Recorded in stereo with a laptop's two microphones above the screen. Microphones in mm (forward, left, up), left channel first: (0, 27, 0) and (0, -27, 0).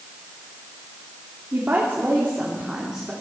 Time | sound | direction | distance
1.5 | a woman speaking | 35° right (ahead or behind) | 2.5 m